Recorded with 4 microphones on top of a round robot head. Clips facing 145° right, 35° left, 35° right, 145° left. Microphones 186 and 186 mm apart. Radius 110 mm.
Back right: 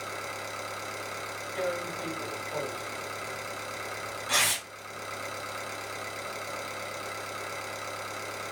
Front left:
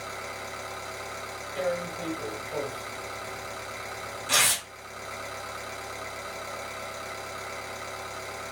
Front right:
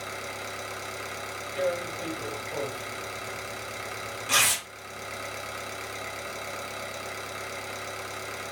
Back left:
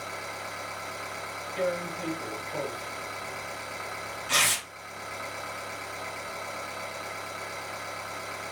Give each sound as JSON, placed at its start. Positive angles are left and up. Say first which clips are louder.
{"t": 0.0, "sound": "an engine running", "louder": "even, front right 1 dB", "azimuth_deg": -85, "distance_m": 0.9}
{"t": 1.6, "sound": "tearing paper", "louder": "front left 3 dB, front right 1 dB", "azimuth_deg": -25, "distance_m": 2.0}